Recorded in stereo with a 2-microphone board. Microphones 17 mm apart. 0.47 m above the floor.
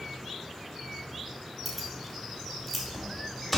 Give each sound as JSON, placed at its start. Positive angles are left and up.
{"t": 1.6, "sound": "keys jangling", "side_deg": 5, "distance_m": 1.7}